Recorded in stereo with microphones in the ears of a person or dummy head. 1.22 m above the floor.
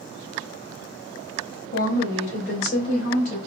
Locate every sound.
1.7 s a woman speaking: 80° left, 1.9 m; by 3.4 s 50° left (ahead or behind), 2.5 m